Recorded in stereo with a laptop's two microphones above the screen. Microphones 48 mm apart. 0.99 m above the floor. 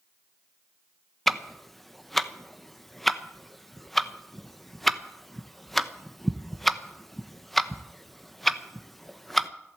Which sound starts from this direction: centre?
Ticking, at 1.3 s.